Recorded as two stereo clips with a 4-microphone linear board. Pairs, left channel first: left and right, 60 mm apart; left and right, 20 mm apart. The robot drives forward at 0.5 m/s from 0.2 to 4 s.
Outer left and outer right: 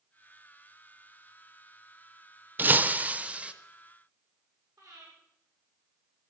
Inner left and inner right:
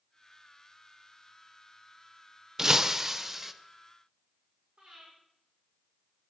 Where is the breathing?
85° right, 8 m.